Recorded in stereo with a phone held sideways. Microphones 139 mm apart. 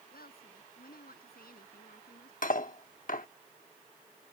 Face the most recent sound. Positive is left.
turn(degrees=65)  # may be behind; listen again after turning